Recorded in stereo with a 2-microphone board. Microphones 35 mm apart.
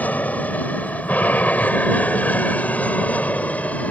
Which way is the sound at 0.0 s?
50° left (ahead or behind).